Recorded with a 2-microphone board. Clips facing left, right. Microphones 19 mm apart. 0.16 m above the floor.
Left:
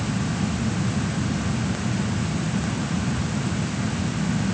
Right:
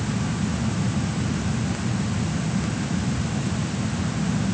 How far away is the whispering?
I don't hear whispering.